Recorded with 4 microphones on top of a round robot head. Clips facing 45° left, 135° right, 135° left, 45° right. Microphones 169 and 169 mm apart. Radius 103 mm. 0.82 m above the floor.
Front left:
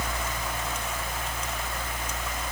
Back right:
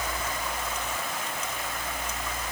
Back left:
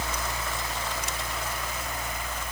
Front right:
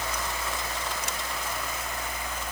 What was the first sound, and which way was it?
Only background noise.